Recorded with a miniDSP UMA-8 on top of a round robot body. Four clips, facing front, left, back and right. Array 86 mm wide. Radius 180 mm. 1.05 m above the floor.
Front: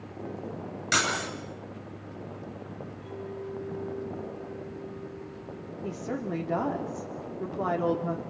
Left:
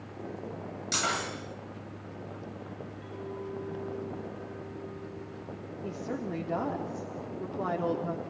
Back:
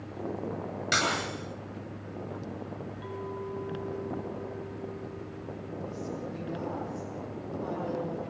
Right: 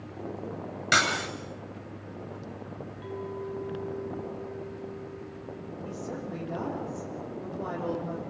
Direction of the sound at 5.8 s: 20° left.